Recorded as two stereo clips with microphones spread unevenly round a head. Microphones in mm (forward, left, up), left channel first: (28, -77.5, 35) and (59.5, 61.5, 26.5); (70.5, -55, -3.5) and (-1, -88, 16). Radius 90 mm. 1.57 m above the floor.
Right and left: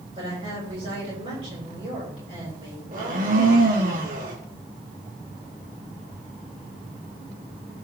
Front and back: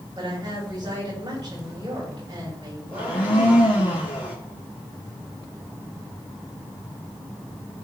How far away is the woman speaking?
About 6.5 m.